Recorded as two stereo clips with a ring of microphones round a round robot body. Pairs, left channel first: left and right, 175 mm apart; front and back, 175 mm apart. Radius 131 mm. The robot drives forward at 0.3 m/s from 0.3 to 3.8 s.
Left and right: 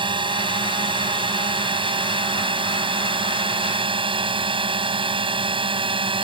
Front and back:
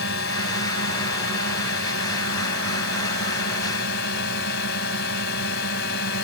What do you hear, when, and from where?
0.0 s a drone: 30° right